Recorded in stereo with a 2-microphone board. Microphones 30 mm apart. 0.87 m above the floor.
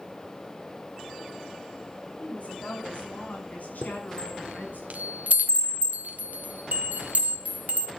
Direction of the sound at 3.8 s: 60° right (ahead or behind).